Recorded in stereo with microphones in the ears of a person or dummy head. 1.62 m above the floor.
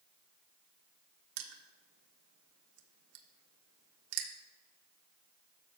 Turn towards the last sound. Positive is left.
turn(degrees=-90)